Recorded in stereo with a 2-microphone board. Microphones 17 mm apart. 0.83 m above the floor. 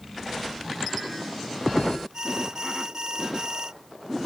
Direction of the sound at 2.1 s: 45° right (ahead or behind).